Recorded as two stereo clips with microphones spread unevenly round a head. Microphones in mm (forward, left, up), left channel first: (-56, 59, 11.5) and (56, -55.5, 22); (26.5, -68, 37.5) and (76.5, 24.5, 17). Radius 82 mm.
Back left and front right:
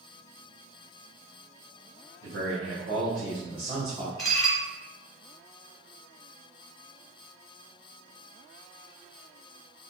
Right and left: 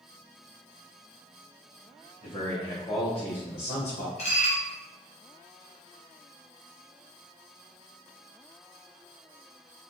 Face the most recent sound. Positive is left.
turn(degrees=-135)